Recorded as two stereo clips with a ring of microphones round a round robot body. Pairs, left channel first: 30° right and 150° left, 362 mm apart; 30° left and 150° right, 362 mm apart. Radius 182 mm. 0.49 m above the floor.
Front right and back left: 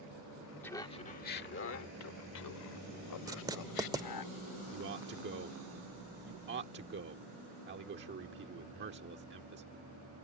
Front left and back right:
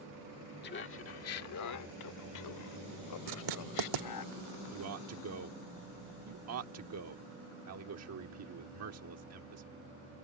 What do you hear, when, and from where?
0.6 s laughter: 50° left; by 4.3 s 5° right
3.3 s writing: 130° right
4.7 s a man speaking: 165° right